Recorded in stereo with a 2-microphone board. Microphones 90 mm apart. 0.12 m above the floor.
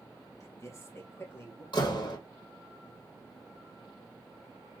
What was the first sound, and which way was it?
A man speaking, 35° left (ahead or behind).